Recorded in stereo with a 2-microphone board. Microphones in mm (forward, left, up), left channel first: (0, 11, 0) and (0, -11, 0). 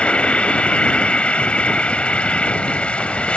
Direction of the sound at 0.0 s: 70° left (ahead or behind).